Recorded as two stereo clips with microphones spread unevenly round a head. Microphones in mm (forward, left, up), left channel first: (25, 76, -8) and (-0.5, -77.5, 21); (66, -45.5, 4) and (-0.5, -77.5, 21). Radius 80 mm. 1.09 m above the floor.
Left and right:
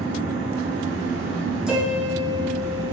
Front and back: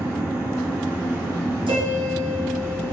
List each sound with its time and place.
0.0 s a fan: 95° right, 1.9 m
1.7 s a piano: 170° left, 1.4 m